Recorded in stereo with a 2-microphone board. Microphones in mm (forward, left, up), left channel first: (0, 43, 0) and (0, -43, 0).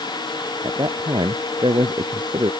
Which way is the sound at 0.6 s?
60° right (ahead or behind).